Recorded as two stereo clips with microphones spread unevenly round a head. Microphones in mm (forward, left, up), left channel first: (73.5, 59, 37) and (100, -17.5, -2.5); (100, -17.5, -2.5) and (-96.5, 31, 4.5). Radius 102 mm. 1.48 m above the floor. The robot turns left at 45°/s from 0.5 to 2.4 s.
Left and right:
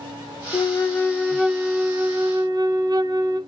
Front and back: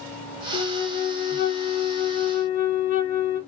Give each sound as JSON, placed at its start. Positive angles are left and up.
{"t": 0.5, "sound": "a flute", "azimuth_deg": 55, "distance_m": 0.6}